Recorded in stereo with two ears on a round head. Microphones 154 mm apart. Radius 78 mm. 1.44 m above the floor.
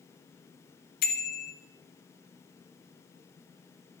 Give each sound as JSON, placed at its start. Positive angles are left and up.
{"t": 1.0, "sound": "a bicycle bell", "side_deg": 55, "distance_m": 2.5}